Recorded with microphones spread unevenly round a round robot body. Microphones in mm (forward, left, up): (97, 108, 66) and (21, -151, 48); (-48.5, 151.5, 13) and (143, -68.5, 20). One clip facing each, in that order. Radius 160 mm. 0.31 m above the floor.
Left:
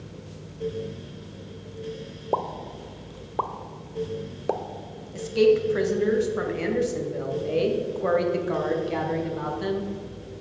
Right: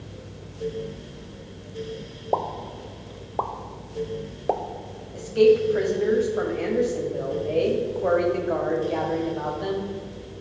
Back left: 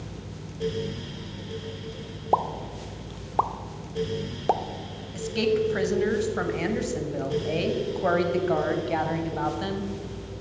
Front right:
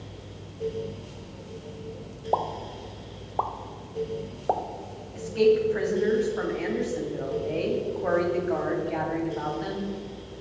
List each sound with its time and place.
2.3 s a pop: 150° left, 0.5 m
5.1 s a woman speaking: 135° left, 1.6 m